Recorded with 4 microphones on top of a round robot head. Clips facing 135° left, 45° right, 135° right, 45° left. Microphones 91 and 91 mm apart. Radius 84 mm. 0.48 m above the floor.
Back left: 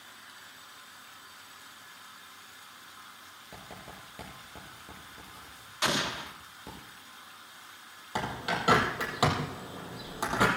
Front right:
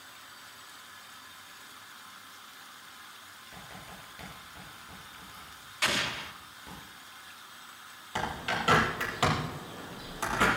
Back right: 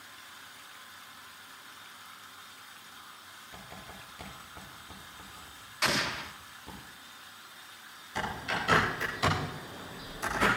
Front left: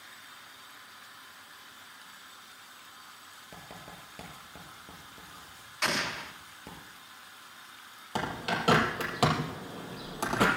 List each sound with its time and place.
3.5 s writing: 85° left, 7.5 m
5.8 s an explosion: 140° left, 1.2 m
8.2 s a bird: 65° left, 4.5 m